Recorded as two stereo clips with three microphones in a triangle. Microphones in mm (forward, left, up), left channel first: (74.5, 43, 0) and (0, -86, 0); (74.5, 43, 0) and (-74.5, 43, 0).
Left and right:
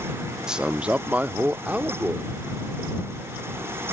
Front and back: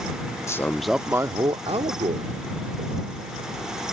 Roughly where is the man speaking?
Ahead right.